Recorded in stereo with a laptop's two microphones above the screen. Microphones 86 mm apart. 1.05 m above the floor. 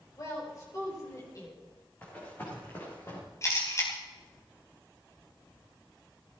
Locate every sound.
0.2 s a woman speaking: 40° left (ahead or behind), 4 m
2.0 s running footsteps: 20° left (ahead or behind), 5 m; by 3.2 s 35° left (ahead or behind), 5.5 m
3.4 s a camera shutter: 35° left (ahead or behind), 3.5 m